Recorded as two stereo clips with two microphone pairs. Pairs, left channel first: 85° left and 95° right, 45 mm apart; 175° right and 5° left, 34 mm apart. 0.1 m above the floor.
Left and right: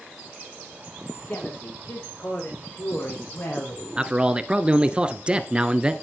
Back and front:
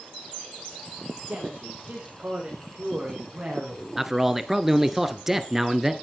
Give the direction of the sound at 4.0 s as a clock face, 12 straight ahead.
2 o'clock.